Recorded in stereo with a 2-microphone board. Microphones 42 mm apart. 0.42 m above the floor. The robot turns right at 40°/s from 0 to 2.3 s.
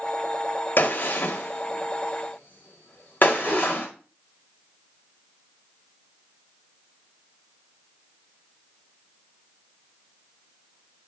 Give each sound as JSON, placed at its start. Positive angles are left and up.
{"t": 0.8, "sound": "a gunshot", "side_deg": 45, "distance_m": 1.5}
{"t": 3.4, "sound": "a whoosh", "side_deg": -10, "distance_m": 4.5}